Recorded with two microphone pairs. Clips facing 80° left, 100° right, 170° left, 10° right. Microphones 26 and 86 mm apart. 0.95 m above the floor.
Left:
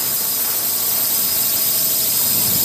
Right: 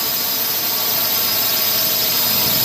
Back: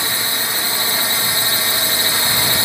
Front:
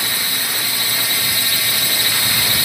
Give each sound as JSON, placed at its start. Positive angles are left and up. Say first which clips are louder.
{"t": 0.0, "sound": "a drone", "louder": "right 3 dB, back 2 dB", "azimuth_deg": -140}